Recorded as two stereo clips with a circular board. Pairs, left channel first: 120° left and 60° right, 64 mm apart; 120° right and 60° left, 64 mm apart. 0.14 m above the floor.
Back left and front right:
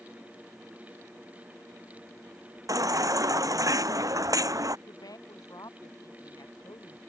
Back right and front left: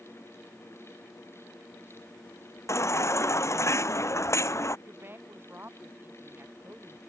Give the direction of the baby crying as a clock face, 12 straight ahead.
3 o'clock.